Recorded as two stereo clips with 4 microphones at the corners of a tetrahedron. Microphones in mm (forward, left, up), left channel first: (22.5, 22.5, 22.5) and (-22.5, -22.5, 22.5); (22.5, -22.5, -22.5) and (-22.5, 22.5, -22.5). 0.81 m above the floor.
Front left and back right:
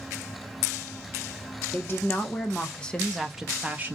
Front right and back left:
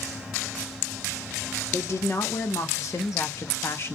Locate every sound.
1.7 s a woman speaking: 5° right, 1.4 m; by 4.0 s 85° right, 0.7 m